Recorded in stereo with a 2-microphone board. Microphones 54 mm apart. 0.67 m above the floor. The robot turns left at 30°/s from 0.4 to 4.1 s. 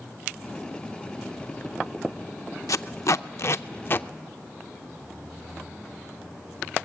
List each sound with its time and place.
2.7 s tape being pulled: 80° left, 0.5 m; by 4.1 s 40° left (ahead or behind), 0.5 m